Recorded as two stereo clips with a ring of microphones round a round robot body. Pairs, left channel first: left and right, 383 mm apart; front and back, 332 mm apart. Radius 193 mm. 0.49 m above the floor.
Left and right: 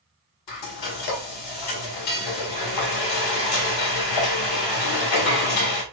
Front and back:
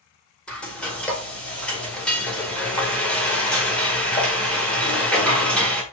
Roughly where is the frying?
Left.